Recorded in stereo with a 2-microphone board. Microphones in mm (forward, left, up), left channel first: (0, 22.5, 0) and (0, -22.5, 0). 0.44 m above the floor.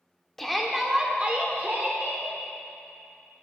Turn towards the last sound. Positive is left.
turn(degrees=-55)  # may be behind; listen again after turning